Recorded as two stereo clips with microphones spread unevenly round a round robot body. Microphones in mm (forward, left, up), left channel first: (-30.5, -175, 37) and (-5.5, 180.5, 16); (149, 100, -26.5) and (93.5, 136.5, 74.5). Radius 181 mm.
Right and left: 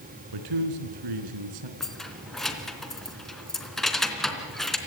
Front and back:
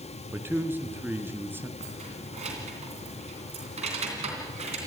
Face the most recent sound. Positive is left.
turn(degrees=175)